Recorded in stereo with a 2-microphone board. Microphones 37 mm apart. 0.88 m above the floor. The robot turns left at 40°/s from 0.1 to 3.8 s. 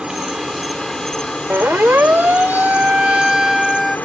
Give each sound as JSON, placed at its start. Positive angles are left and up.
{"t": 0.0, "sound": "an insect", "azimuth_deg": -155}
{"t": 1.5, "sound": "a siren", "side_deg": -80}